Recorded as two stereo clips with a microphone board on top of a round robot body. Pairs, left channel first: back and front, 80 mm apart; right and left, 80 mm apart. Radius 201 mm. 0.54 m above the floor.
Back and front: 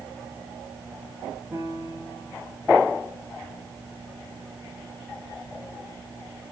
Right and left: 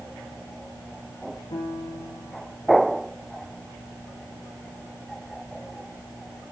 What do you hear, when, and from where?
1.5 s a piano: 75° right, 9 m